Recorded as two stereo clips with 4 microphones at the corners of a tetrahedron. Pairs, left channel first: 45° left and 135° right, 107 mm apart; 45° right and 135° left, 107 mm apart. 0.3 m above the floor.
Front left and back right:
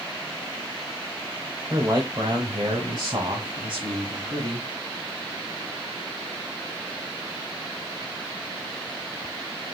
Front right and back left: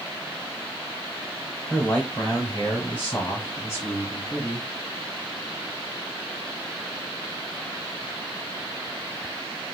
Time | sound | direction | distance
1.7 | a man speaking | 105° right | 1.1 m